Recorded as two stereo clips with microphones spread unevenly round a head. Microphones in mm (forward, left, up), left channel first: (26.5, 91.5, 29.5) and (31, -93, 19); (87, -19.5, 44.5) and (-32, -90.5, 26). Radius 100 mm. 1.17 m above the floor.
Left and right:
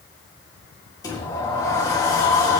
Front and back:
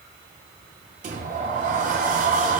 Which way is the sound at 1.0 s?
165° left.